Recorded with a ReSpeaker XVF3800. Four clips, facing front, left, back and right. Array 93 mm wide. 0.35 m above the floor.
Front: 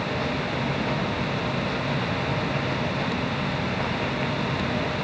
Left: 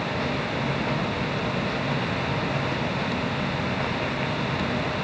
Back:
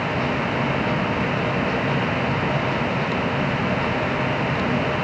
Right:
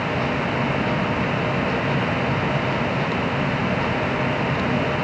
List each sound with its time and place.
Only background noise.